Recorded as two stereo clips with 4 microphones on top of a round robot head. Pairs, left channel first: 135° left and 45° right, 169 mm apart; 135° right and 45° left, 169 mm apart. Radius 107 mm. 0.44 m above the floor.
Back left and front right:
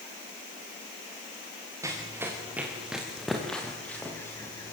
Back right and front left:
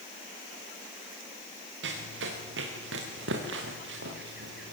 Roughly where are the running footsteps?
Ahead left.